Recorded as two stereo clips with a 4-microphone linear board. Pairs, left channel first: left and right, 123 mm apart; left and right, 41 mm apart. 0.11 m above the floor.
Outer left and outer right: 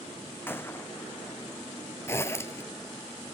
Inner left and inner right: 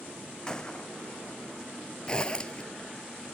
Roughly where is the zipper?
Left.